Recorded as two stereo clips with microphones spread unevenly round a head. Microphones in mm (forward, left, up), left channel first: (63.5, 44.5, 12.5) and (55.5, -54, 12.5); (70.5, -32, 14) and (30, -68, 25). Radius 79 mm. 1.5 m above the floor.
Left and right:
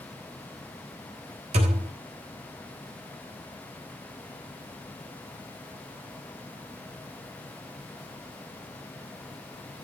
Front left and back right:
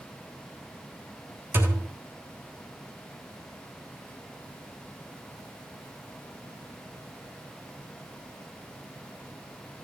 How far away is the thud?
About 3.5 m.